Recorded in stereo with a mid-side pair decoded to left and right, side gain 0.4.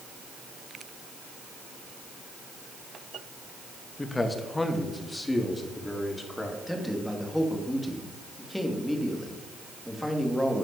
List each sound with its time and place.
4.0 s a man speaking: 25° left, 2.5 m; by 6.6 s 15° left, 4.5 m
6.7 s a man speaking: 5° left, 3.5 m